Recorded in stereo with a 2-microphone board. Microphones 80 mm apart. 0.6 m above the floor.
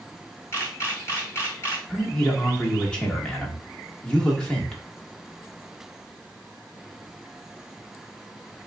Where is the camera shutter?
35° left (ahead or behind), 1.4 m.